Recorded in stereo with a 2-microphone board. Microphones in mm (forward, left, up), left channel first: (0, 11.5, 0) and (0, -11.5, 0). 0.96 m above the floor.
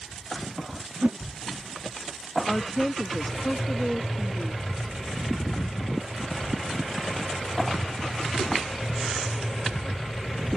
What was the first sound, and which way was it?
A whoosh, 60° right (ahead or behind).